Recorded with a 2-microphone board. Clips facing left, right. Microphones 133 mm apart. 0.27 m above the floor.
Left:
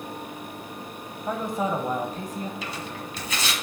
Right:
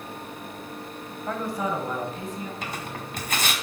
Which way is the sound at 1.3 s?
15° left (ahead or behind).